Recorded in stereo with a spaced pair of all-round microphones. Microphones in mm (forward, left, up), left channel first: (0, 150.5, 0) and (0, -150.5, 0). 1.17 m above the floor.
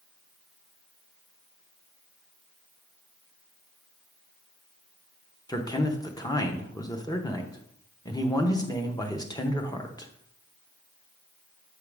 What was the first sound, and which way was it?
A man speaking, 15° left (ahead or behind).